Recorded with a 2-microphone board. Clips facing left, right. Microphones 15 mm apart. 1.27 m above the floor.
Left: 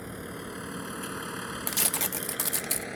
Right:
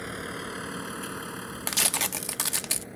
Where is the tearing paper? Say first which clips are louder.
Right 5 dB; 25° right (ahead or behind).